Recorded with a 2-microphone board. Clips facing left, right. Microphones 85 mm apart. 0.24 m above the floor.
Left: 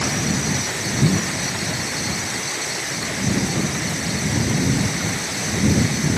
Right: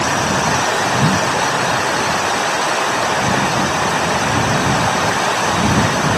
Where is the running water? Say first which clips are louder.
Right 7 dB; 70° right (ahead or behind).